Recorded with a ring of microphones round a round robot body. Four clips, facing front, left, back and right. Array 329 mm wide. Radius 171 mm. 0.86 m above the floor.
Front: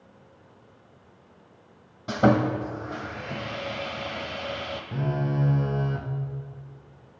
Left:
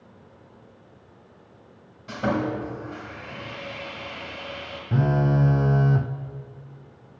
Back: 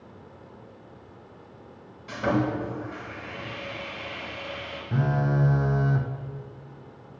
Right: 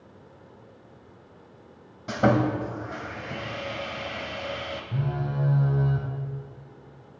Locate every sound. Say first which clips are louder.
2.1 s sawing: right 3 dB, front 4 dB; 35° right, 1.0 m
4.9 s a phone buzzing: left 10 dB, back 3 dB; 105° left, 0.5 m